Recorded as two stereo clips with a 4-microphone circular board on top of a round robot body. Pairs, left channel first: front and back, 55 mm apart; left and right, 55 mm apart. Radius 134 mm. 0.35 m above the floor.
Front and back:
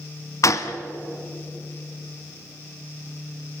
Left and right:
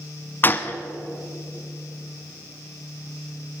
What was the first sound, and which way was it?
A gunshot, 35° left.